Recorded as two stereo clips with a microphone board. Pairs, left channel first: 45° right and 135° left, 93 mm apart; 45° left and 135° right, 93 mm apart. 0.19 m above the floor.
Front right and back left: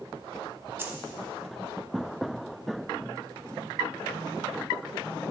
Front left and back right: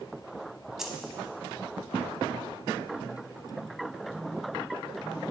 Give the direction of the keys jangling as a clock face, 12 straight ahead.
7 o'clock.